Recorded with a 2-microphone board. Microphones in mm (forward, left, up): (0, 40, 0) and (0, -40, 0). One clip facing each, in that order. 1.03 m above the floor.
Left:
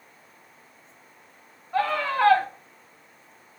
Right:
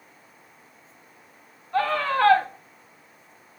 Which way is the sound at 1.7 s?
15° left (ahead or behind).